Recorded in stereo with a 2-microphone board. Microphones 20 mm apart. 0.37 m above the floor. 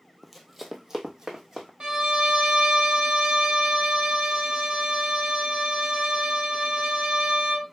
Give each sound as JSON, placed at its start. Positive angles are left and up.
{"t": 0.2, "sound": "running footsteps", "side_deg": 5, "distance_m": 0.5}
{"t": 1.8, "sound": "a violin", "side_deg": -60, "distance_m": 1.1}